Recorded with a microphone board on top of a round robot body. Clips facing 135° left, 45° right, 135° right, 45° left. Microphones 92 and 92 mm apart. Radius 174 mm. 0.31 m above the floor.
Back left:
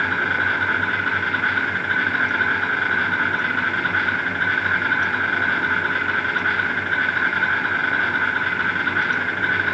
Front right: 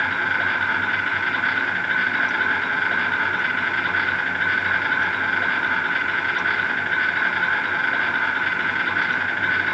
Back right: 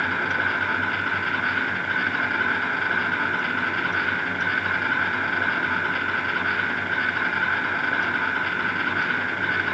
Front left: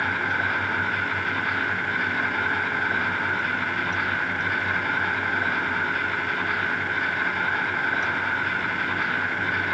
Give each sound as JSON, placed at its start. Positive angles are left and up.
{"t": 0.0, "sound": "an insect", "azimuth_deg": -165, "distance_m": 5.0}